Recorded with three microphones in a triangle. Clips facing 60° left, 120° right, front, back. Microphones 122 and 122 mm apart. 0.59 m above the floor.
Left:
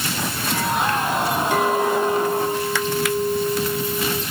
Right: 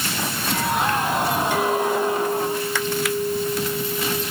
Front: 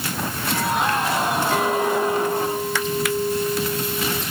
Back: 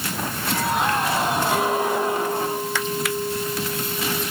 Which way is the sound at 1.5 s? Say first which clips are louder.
Left 4 dB, front 1 dB; 105° left.